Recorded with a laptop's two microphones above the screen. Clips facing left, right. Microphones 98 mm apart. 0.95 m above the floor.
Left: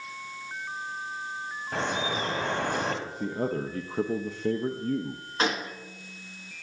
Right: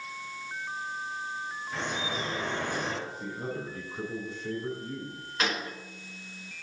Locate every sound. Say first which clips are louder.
1.7 s dripping: left 5 dB; 65° left (ahead or behind), 1.6 m
3.0 s a man speaking: left 6 dB; 60° left (ahead or behind), 0.6 m
5.4 s a gunshot: left 3 dB; 30° left (ahead or behind), 1.5 m